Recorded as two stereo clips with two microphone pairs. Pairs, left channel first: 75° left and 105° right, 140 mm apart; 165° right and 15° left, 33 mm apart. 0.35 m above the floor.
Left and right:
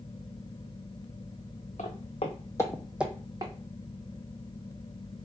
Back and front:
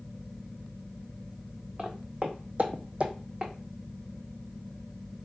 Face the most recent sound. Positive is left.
turn(degrees=-45)